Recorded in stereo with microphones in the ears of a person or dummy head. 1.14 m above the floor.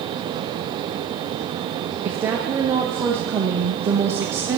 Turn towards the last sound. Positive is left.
turn(degrees=-10)  # may be behind; listen again after turning